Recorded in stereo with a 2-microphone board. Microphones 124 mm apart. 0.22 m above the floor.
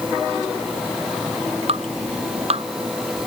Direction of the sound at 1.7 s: 55° right (ahead or behind).